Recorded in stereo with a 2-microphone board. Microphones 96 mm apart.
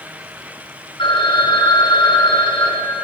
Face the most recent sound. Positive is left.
turn(degrees=55)  # may be behind; listen again after turning